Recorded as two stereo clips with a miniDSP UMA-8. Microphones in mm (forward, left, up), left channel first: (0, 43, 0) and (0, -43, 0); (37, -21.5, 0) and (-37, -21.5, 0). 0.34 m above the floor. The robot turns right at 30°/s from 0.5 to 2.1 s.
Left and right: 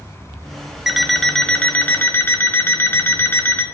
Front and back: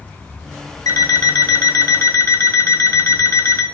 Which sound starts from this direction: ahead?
An alarm clock, at 0.9 s.